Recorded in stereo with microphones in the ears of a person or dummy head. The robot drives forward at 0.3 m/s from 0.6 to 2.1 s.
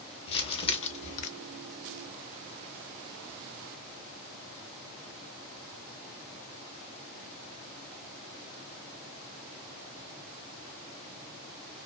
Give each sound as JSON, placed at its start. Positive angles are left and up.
{"t": 0.3, "sound": "crumpling", "side_deg": 30, "distance_m": 0.8}